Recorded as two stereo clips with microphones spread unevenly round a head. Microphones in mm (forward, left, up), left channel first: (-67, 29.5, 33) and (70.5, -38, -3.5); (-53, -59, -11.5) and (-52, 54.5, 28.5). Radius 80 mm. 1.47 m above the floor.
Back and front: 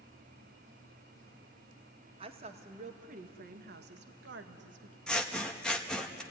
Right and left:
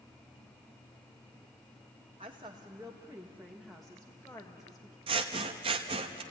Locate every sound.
2.2 s a woman speaking: 30° left, 1.9 m; by 5.0 s 25° right, 1.8 m
5.1 s scissors: 80° left, 1.1 m